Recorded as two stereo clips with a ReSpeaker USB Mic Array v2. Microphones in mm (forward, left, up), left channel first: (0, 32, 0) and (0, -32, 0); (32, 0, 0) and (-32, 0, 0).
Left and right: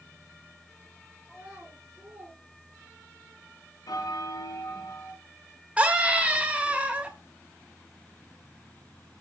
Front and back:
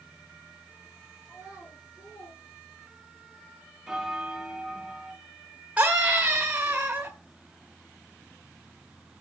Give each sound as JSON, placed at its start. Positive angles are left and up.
{"t": 1.2, "sound": "a child speaking", "azimuth_deg": -20, "distance_m": 4.0}
{"t": 3.9, "sound": "a bell", "azimuth_deg": 95, "distance_m": 1.0}
{"t": 5.8, "sound": "a scream", "azimuth_deg": -140, "distance_m": 1.4}